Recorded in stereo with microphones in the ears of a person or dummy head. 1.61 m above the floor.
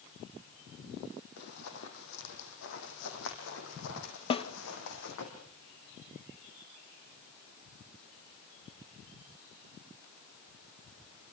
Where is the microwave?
I don't hear a microwave.